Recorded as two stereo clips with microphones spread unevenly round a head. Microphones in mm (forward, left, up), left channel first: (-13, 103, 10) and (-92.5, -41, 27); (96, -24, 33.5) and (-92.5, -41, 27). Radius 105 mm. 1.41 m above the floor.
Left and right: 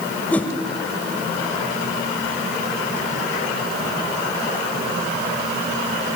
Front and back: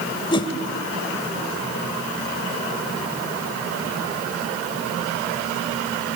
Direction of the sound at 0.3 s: 25° right.